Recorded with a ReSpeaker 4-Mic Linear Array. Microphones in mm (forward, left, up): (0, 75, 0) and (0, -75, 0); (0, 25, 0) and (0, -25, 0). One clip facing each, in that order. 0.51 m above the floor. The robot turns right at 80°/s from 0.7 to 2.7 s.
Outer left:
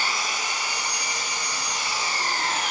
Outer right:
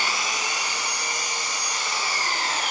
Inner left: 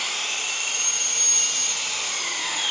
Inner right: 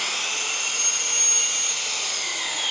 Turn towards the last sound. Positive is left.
turn(degrees=70)